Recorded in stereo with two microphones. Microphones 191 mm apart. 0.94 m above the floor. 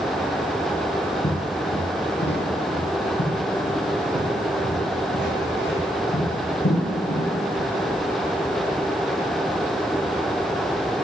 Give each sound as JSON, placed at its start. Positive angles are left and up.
{"t": 1.2, "sound": "footsteps", "side_deg": 65, "distance_m": 2.0}